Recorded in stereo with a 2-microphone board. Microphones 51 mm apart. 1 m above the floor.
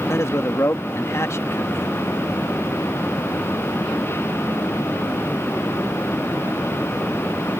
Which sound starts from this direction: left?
A man speaking, at 0.1 s.